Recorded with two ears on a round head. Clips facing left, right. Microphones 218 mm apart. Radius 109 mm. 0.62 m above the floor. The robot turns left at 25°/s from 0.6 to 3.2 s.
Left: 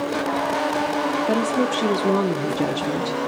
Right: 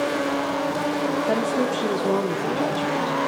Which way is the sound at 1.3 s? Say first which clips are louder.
Left 3 dB; 150° left.